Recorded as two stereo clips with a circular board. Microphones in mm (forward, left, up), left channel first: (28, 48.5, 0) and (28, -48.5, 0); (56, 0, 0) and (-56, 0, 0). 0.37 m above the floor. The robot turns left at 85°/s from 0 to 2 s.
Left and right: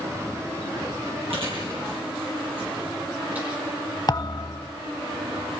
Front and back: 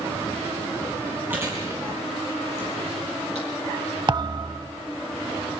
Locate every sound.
1.3 s chewing: 100° right, 9.5 m; by 3.5 s 160° right, 9.5 m
4.1 s a thud: 135° left, 0.7 m